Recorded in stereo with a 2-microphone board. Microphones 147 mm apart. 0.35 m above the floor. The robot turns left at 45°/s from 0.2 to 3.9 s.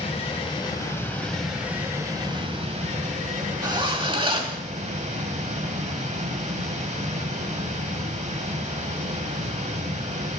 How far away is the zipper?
About 1.2 m.